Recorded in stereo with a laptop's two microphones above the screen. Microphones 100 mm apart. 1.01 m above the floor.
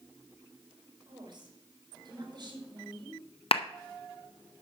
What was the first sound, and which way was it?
A woman speaking, 50° right (ahead or behind).